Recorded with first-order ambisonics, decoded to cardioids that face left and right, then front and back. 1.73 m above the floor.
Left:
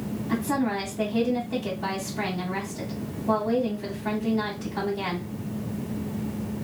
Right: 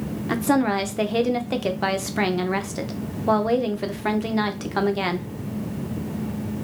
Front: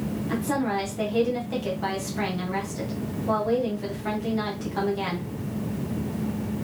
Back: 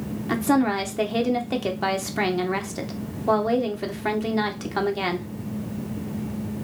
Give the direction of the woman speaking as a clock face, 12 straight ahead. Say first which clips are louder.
Right 6 dB, back 5 dB; 4 o'clock.